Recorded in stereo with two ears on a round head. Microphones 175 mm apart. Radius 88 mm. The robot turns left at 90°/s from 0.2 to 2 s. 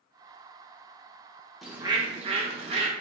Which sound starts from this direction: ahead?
A bird, at 1.6 s.